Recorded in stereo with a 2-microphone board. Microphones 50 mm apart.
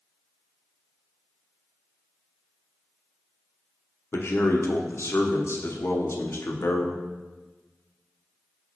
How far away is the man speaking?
About 0.9 m.